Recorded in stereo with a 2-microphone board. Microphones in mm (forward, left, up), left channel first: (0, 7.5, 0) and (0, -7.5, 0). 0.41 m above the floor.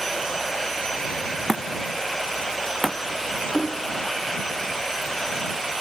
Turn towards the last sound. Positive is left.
turn(degrees=40)  # may be behind; listen again after turning